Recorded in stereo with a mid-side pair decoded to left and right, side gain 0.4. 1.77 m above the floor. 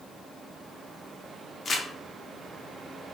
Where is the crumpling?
45° left, 0.7 m.